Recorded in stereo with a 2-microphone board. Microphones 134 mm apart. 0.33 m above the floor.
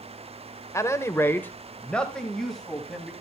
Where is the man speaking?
20° left (ahead or behind), 0.9 m; by 3.1 s centre (ahead or behind), 2.0 m.